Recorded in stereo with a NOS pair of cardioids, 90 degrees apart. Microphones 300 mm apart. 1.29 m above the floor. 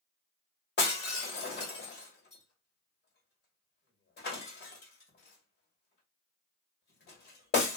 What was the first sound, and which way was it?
Breaking glass, 40° left.